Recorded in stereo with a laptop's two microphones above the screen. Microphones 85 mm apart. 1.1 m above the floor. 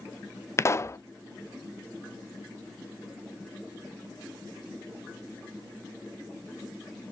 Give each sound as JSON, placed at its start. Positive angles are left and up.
{"t": 0.6, "sound": "a pop", "side_deg": 35, "distance_m": 0.5}